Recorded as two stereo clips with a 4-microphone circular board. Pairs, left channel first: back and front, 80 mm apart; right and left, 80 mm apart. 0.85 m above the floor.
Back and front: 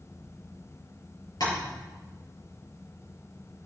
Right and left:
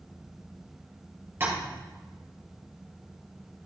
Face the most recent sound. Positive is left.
turn(degrees=150)